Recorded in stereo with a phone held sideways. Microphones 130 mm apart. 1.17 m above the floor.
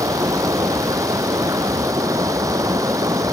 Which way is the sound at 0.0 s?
25° right (ahead or behind).